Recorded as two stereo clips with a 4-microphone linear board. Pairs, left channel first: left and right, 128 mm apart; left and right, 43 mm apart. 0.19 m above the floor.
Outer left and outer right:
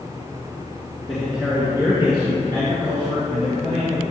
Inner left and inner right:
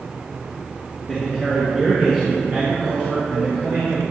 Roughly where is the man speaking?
Centre.